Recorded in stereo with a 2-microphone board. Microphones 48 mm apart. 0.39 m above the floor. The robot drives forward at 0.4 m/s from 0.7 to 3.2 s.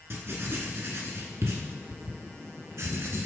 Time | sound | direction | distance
0.1 | writing | 60° right (ahead or behind) | 1.3 m